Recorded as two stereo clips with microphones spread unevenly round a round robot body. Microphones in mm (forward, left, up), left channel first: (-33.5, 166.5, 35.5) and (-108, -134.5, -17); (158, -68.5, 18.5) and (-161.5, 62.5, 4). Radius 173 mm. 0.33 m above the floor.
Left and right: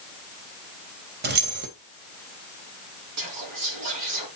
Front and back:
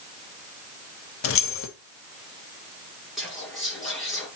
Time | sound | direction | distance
1.2 | keys jangling | 65° right | 1.1 m
3.2 | whispering | 115° right | 5 m